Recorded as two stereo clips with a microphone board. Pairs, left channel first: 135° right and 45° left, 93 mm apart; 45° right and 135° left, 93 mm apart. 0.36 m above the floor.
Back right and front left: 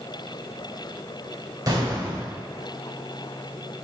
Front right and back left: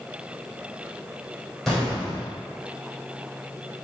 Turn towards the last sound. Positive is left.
turn(degrees=45)